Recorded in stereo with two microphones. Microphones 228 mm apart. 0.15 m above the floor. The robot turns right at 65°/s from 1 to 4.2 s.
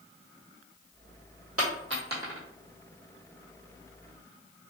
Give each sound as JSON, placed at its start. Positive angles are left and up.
{"t": 1.6, "sound": "a dropped coin", "side_deg": -75, "distance_m": 1.2}